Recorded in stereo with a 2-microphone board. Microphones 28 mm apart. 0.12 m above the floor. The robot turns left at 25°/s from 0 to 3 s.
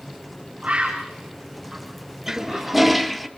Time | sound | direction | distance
0.6 | a bird | 40° right (ahead or behind) | 8 m
2.3 | a toilet flushing | 15° right (ahead or behind) | 1.3 m